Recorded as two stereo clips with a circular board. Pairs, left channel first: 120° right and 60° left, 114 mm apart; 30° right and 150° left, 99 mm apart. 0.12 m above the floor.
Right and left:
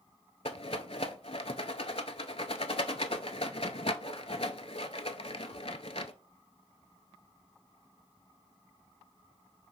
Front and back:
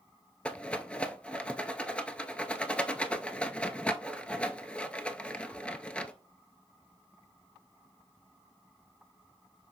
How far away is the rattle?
About 0.5 m.